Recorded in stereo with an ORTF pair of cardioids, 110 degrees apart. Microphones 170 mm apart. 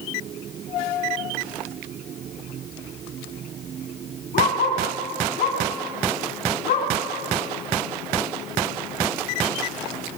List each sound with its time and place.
4.3 s a dog barking: 55° left, 7 m; by 6.9 s 60° left, 8 m